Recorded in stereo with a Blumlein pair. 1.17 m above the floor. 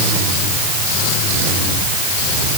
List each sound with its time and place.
Only background noise.